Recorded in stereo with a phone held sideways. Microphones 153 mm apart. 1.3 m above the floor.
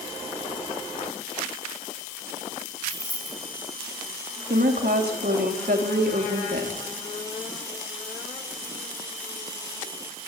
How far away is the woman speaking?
About 3 m.